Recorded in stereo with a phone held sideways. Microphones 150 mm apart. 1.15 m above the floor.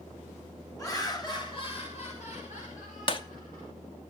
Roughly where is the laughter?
Left.